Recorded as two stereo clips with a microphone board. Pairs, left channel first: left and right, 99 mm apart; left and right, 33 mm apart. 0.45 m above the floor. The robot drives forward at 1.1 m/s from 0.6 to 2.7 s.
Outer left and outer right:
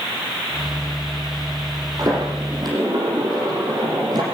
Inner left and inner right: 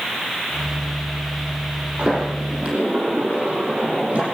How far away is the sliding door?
About 8 m.